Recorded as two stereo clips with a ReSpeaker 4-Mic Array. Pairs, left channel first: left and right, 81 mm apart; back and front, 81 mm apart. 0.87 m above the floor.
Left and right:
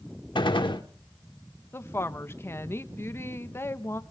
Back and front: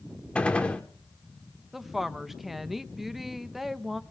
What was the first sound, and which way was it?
A gunshot, 105° left.